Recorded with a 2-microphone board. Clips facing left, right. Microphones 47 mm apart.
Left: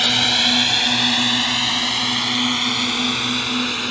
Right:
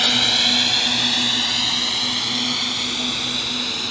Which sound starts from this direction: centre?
A drone, at 0.0 s.